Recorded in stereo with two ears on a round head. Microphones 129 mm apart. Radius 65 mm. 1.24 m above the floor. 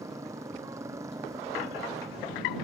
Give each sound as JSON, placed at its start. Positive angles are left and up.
{"t": 0.0, "sound": "a motorcycle", "side_deg": -20}